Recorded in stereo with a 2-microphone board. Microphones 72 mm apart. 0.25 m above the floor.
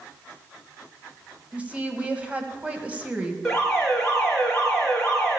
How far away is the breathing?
No breathing in this recording.